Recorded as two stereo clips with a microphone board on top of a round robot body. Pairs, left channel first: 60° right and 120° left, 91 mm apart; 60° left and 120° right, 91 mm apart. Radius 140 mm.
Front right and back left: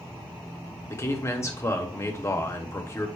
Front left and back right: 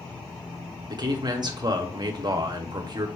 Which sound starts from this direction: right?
A man speaking, at 0.9 s.